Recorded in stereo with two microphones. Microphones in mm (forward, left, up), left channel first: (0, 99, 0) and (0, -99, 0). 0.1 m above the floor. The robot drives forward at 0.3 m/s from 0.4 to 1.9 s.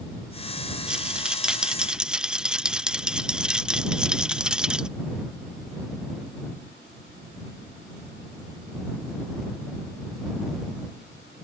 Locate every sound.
0.9 s a rattle: 5° right (ahead or behind)